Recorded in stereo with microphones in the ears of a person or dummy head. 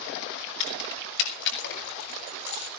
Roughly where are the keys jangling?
Left.